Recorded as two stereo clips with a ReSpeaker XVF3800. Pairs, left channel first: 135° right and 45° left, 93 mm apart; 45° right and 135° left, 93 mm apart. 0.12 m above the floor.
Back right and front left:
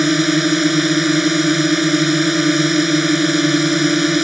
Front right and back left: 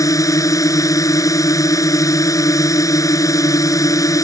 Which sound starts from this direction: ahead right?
A drone, at 0.0 s.